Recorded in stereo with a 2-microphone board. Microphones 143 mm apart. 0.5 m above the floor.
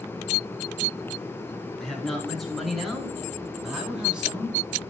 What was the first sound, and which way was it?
A man speaking, 5° left (ahead or behind).